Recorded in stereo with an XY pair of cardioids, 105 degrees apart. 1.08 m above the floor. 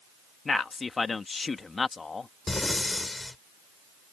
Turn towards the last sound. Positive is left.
turn(degrees=20)